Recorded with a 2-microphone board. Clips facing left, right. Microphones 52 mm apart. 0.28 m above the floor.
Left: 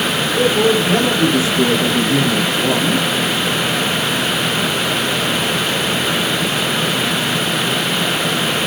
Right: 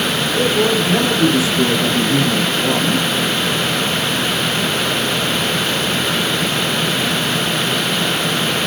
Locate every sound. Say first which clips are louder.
0.3 s a man speaking: left 2 dB; 30° left (ahead or behind), 6 m; by 3.1 s 45° left (ahead or behind), 3.5 m